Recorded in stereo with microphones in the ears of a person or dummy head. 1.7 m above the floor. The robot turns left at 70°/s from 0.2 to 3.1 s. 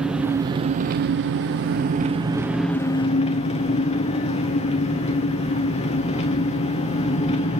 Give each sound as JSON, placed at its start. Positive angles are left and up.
{"t": 0.0, "sound": "an engine running", "azimuth_deg": -10, "distance_m": 0.9}